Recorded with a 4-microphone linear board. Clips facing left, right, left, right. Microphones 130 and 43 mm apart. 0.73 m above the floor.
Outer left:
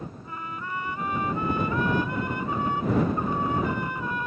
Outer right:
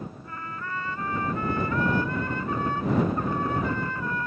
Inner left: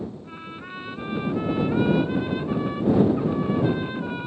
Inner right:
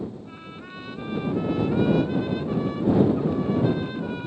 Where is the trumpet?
15° left (ahead or behind).